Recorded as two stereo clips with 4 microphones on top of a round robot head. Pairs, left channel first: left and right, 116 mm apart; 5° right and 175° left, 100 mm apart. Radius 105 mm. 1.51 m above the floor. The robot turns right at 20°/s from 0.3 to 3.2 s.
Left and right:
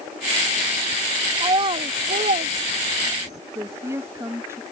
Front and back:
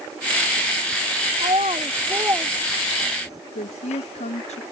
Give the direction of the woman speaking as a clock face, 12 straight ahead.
1 o'clock.